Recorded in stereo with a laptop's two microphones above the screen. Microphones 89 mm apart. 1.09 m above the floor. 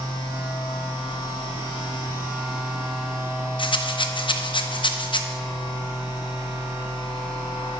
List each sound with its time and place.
0.0 s a machine running: 80° left, 3.5 m
3.6 s a rattle: 65° left (ahead or behind), 0.6 m